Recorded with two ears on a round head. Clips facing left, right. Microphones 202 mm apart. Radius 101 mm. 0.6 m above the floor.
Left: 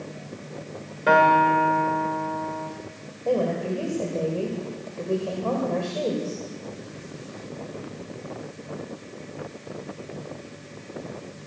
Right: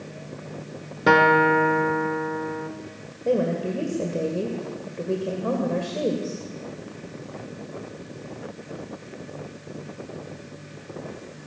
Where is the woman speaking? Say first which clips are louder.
Right 1 dB; 20° right (ahead or behind), 2 m.